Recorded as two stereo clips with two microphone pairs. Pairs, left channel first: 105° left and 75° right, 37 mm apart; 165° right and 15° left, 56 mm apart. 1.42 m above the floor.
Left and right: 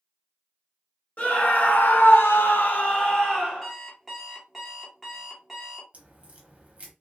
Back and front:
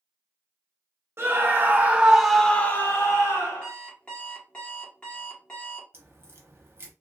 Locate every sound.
1.2 s a scream: 55° left, 1.0 m; by 3.7 s straight behind, 1.0 m
3.6 s an alarm clock: 165° right, 1.0 m
5.9 s a crack: 25° right, 0.7 m